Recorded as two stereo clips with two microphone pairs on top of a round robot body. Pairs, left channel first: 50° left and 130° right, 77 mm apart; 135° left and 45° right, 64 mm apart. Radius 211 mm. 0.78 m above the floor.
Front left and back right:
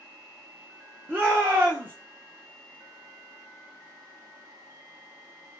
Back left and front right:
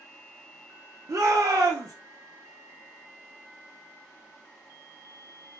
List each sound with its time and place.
1.1 s a shout: 60° right, 0.8 m